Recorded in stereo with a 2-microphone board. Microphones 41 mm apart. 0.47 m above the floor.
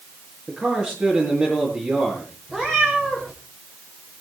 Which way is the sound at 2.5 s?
5° right (ahead or behind).